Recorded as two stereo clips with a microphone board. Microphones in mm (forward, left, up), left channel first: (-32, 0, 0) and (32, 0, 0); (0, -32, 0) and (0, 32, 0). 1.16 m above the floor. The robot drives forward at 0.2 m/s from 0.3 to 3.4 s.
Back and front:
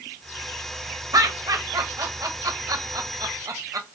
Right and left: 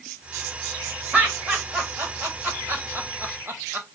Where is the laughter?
20° left, 1.4 m; by 3.9 s 30° left, 1.0 m.